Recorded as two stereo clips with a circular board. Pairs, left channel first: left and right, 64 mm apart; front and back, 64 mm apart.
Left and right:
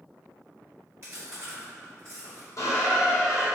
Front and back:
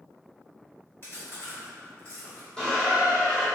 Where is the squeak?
75° left, 1.6 m.